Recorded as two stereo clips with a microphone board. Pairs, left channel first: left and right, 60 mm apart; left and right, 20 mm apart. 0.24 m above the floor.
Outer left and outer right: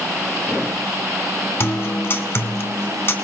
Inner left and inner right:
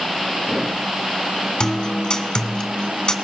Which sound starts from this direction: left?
A guitar, at 1.6 s.